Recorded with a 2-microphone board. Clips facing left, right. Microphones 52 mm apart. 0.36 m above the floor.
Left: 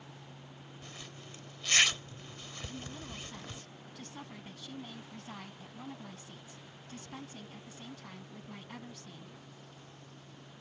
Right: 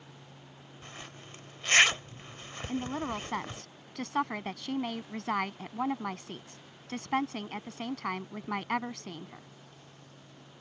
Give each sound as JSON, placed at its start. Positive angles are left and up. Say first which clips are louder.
{"t": 0.8, "sound": "a zipper", "louder": "right 4 dB", "side_deg": -35}
{"t": 2.7, "sound": "a woman speaking", "louder": "right 16 dB", "side_deg": -65}